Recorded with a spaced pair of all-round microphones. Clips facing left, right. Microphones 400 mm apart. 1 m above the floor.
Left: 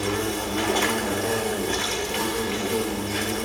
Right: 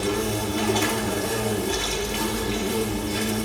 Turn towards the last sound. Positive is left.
turn(degrees=-50)  # may be behind; listen again after turning